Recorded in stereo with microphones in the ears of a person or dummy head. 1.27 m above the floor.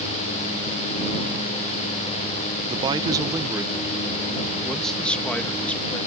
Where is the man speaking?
30° right (ahead or behind); by 6.1 s 10° left (ahead or behind).